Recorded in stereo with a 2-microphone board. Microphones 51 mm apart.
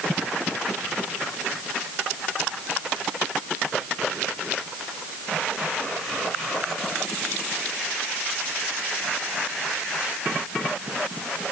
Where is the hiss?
I don't hear a hiss.